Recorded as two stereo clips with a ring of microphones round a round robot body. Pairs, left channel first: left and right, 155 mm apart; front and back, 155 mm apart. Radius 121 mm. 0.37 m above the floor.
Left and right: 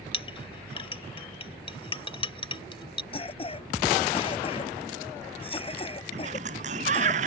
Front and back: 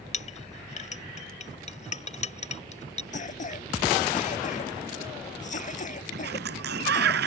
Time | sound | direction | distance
0.1 | a clink | 35° left | ?
3.1 | a cough | 40° left | ?
6.1 | a sliding door | 145° right | ?